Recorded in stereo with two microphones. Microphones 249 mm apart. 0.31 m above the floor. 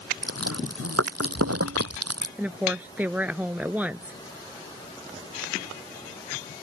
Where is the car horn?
No car horn in this recording.